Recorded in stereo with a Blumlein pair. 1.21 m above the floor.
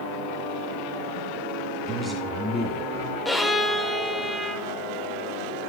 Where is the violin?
5° left, 0.8 m.